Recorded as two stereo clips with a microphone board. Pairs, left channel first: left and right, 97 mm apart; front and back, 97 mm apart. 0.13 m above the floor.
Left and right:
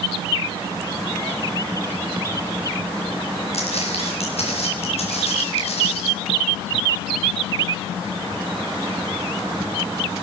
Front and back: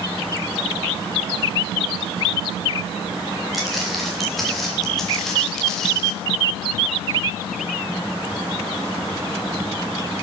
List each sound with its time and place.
3.5 s footsteps: 90° left, 9 m; by 6.1 s 85° left, 8 m